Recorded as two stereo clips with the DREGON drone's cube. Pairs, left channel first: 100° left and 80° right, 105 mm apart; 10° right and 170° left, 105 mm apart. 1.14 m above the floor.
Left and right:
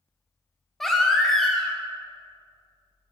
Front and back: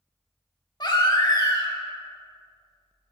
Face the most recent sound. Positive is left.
turn(degrees=15)